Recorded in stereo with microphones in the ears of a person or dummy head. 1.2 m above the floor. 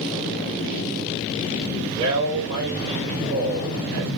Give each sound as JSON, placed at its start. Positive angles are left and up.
{"t": 1.9, "sound": "a man speaking", "side_deg": -20, "distance_m": 2.5}